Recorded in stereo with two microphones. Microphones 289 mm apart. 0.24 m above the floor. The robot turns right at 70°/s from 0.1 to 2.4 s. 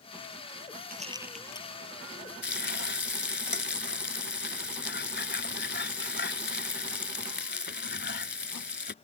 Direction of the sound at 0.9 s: 30° right (ahead or behind).